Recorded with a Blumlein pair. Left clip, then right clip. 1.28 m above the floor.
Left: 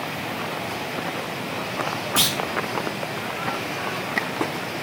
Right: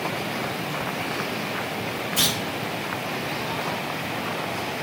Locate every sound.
2.2 s a clunk: 55° left, 1.0 m